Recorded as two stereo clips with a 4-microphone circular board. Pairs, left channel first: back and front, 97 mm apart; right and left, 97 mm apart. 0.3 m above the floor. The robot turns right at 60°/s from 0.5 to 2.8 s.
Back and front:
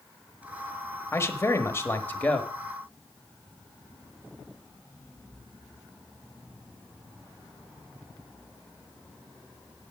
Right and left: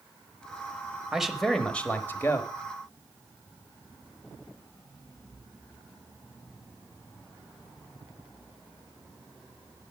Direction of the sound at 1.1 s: 165° left.